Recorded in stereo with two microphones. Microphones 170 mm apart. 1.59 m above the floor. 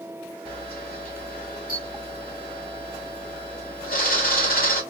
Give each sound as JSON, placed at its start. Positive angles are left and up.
{"t": 0.5, "sound": "a camera shutter", "side_deg": 55, "distance_m": 3.0}